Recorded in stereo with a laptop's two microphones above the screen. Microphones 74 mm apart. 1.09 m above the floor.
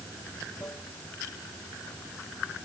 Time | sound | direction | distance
0.0 | running water | 40° left (ahead or behind) | ?